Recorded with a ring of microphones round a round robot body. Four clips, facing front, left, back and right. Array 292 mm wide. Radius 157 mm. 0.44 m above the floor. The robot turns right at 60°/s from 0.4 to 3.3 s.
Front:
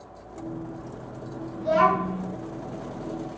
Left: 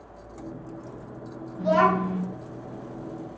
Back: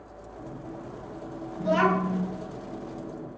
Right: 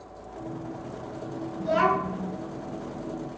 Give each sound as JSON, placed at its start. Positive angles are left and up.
{"t": 1.6, "sound": "a child speaking", "azimuth_deg": 85, "distance_m": 1.1}